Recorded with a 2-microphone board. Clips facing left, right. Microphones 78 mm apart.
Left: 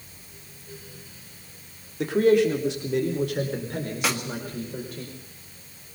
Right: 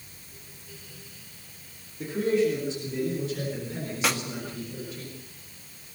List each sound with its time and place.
2.0 s a man speaking: 85° left, 3.5 m; by 5.0 s 50° left (ahead or behind), 5.5 m
4.0 s a snare drum: centre (ahead or behind), 1.9 m